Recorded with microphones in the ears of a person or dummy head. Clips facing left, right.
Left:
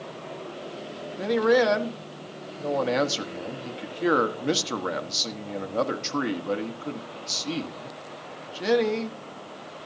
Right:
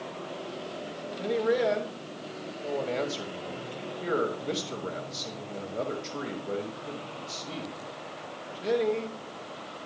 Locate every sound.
1.2 s a man speaking: 85° left, 1.3 m